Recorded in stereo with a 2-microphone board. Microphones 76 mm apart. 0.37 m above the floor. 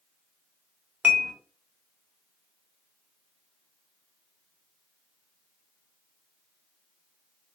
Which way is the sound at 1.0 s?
20° right (ahead or behind).